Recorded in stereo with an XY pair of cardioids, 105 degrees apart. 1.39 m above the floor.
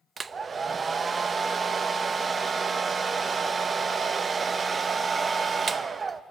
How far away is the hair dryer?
About 0.7 m.